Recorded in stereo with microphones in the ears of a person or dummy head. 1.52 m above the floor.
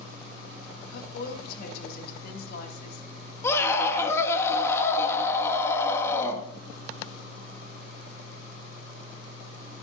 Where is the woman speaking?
55° left (ahead or behind), 2.5 m.